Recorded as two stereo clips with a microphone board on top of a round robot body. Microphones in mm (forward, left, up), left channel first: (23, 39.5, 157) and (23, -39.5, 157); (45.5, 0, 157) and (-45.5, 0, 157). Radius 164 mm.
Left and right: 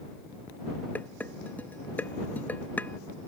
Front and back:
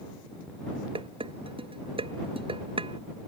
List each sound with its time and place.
0.9 s dishes clattering: 160° left